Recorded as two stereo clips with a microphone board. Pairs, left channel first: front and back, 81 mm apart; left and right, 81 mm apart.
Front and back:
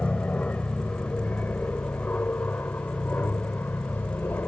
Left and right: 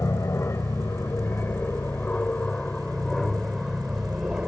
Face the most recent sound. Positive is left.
turn(degrees=-20)